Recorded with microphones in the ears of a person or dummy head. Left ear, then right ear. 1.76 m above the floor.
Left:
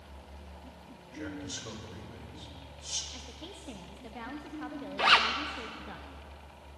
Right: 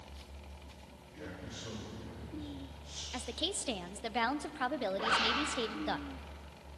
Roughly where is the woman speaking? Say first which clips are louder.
Right 8 dB; right.